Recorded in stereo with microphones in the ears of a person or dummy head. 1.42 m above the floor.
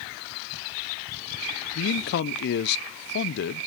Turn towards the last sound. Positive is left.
turn(degrees=55)  # may be behind; listen again after turning